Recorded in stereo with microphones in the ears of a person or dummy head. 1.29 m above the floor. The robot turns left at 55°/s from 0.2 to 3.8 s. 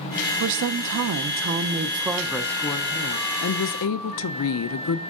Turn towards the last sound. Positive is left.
turn(degrees=100)